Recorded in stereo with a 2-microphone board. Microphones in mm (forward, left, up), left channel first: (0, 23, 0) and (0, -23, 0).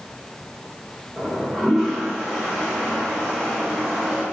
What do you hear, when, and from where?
1.2 s a toilet flushing: 10° left (ahead or behind), 1.5 m